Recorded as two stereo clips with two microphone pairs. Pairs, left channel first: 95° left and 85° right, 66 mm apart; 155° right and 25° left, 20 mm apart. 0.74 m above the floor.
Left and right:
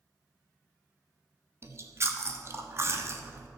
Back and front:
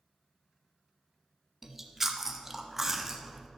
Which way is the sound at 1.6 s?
45° right.